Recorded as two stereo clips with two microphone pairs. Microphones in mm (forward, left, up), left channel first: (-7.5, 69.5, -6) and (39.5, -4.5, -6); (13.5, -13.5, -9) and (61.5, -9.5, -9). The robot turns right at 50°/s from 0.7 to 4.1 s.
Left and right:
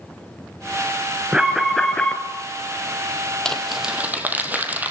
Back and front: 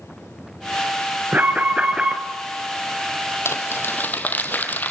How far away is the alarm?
About 2 m.